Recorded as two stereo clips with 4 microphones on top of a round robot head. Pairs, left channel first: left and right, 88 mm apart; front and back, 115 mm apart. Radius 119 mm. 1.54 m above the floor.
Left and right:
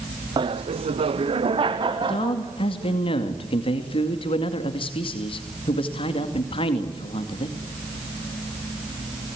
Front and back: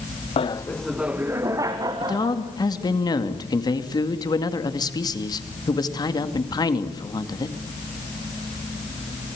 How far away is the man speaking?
About 2.5 m.